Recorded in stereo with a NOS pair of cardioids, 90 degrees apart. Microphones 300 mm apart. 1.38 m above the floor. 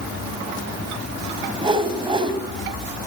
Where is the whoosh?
15° right, 3 m.